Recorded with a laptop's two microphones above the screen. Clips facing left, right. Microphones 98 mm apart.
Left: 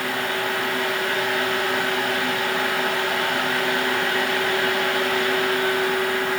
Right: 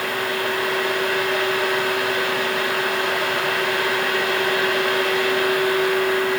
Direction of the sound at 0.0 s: 85° right.